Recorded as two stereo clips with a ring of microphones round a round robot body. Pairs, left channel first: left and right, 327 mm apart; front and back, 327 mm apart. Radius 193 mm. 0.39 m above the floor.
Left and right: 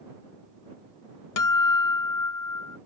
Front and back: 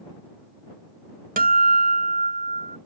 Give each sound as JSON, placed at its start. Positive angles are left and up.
{"t": 1.4, "sound": "a guitar", "azimuth_deg": 115}